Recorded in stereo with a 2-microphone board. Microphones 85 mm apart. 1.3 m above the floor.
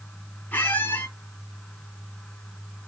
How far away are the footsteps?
I don't hear footsteps.